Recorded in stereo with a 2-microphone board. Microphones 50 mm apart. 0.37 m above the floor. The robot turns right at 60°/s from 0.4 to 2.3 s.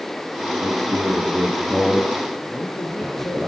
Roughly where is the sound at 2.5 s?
Left.